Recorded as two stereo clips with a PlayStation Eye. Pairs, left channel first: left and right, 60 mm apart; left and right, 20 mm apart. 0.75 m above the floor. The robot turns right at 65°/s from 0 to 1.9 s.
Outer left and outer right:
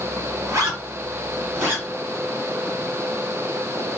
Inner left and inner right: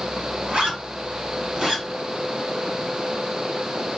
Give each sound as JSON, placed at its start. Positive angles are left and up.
{"t": 0.5, "sound": "a zipper", "side_deg": -60, "distance_m": 1.4}